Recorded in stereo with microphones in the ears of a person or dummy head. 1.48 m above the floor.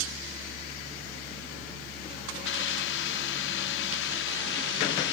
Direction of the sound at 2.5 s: 75° left (ahead or behind).